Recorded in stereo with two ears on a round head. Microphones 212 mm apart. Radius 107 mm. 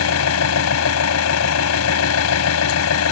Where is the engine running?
70° left (ahead or behind).